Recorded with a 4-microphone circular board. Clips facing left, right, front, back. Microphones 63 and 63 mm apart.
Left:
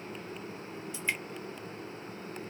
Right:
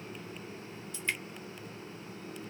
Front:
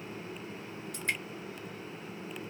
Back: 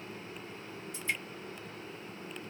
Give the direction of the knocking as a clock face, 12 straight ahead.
No knocking in this recording.